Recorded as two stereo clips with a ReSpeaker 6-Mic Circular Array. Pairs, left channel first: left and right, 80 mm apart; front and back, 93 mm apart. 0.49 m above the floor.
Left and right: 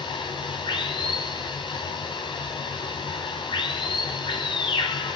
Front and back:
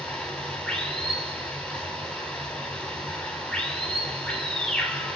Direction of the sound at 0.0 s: 80° left.